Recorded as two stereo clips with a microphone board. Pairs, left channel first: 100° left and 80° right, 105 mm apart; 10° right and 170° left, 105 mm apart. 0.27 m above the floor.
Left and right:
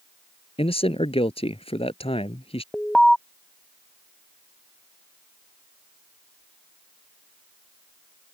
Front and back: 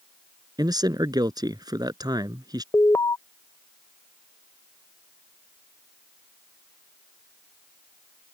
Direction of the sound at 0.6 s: 120° left.